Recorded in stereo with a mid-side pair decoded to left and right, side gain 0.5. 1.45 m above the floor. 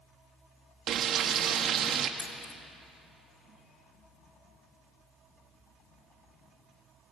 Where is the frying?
60° right, 2.0 m.